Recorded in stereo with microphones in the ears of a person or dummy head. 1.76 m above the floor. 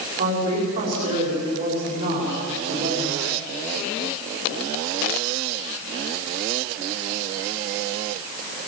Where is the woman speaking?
55° right (ahead or behind), 6 m.